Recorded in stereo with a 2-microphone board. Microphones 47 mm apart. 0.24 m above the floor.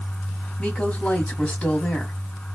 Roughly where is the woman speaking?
Left.